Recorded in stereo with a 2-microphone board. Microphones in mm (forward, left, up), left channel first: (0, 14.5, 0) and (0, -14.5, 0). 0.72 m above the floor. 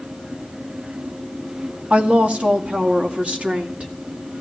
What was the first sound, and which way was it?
A woman speaking, 50° right (ahead or behind).